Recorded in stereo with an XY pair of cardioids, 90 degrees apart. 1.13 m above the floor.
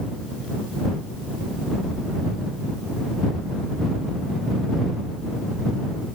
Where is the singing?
I don't hear singing.